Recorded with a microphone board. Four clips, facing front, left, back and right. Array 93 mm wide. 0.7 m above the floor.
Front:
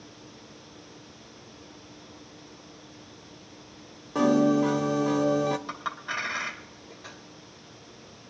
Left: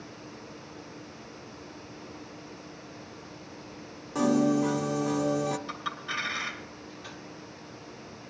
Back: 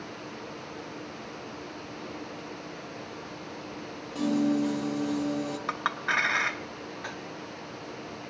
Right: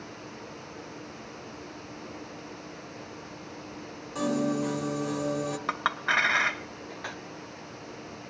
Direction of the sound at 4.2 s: 15° left.